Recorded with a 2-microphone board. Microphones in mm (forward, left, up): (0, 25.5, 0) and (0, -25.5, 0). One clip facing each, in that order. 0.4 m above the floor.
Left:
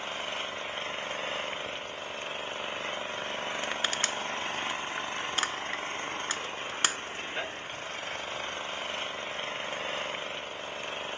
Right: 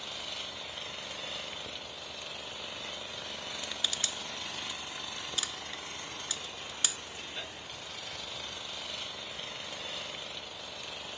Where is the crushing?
45° left (ahead or behind).